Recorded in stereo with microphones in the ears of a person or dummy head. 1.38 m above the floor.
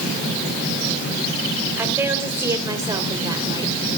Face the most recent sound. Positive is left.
turn(degrees=-30)  # may be behind; listen again after turning